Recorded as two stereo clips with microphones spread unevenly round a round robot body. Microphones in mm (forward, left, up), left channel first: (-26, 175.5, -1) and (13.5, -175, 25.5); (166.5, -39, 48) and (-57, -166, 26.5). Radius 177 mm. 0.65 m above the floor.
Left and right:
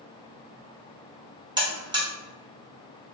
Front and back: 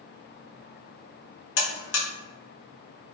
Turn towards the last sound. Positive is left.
turn(degrees=-5)